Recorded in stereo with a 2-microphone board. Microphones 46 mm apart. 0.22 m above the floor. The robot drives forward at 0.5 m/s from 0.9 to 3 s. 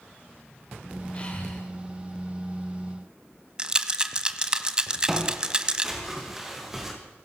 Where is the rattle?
20° right (ahead or behind), 1.2 m.